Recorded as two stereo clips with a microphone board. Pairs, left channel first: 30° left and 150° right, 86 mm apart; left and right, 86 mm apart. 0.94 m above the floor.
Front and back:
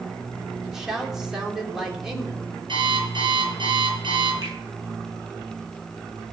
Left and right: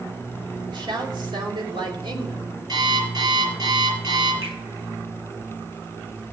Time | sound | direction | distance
0.7 | a woman speaking | 65° right | 3 m
2.7 | an alarm clock | 125° right | 8 m
4.4 | a finger snap | 105° right | 9 m